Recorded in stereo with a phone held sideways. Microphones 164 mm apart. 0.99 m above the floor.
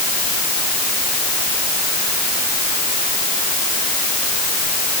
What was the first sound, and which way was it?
Only background noise.